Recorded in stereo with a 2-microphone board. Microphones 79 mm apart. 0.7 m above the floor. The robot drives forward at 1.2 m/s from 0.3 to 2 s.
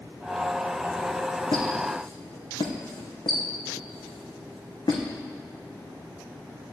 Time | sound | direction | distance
1.5 | a squeak | 75° left (ahead or behind) | 2.5 m